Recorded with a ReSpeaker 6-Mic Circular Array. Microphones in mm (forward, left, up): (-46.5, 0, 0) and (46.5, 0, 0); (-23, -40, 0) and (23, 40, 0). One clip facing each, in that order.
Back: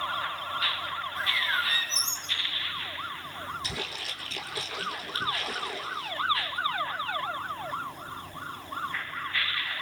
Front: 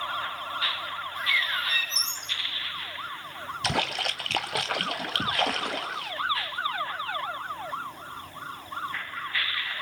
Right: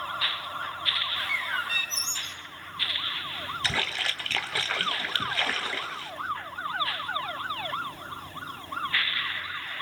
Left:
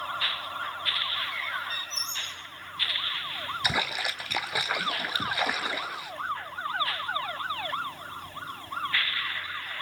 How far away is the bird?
About 4 m.